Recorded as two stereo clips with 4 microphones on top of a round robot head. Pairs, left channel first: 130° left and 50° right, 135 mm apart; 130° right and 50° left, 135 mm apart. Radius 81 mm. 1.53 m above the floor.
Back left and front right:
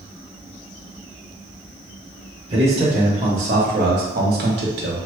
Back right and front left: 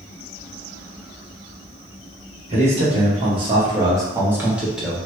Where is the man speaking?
Straight ahead, 1.8 m; by 5.1 s 50° right, 1.1 m.